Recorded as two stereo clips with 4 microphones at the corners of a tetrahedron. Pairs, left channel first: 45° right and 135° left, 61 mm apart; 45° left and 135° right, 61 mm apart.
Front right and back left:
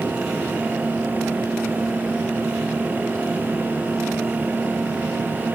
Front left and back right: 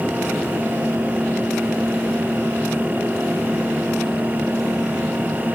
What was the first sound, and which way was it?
Only background noise.